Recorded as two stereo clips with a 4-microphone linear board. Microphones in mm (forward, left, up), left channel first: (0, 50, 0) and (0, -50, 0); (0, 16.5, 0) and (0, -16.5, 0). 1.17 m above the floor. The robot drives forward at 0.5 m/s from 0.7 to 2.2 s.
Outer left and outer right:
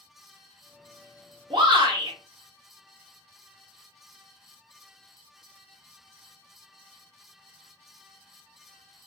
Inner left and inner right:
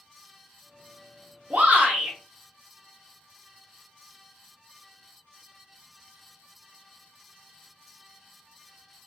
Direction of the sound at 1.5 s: 55° right (ahead or behind).